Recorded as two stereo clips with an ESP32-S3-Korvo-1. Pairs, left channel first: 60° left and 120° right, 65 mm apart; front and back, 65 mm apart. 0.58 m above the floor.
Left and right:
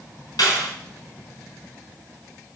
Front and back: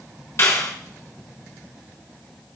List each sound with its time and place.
0.4 s a clap: 50° left, 4 m